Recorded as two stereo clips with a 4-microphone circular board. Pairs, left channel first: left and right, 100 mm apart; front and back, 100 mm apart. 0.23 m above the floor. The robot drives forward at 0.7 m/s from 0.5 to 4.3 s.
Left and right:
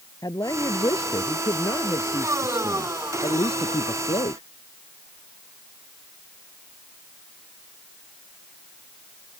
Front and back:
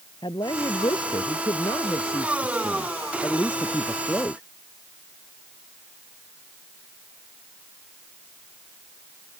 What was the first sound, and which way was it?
A woman speaking, 40° left.